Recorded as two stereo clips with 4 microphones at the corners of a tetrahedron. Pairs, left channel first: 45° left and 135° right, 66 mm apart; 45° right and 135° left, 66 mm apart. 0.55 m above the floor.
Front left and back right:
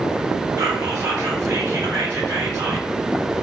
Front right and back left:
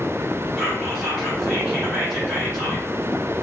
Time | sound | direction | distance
0.6 | whispering | 150° right | 1.4 m